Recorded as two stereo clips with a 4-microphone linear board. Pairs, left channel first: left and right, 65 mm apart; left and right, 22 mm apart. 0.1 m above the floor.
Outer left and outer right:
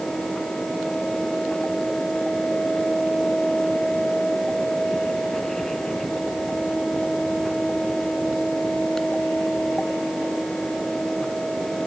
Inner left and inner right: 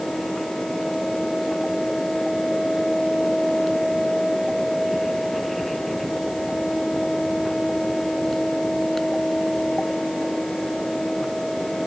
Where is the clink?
I don't hear a clink.